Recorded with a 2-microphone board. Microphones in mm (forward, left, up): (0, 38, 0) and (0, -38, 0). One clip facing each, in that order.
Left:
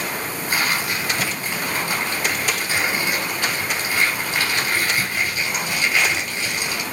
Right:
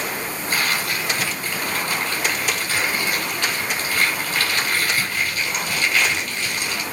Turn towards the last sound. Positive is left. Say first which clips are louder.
# left 1 dB
turn(degrees=15)  # may be behind; listen again after turning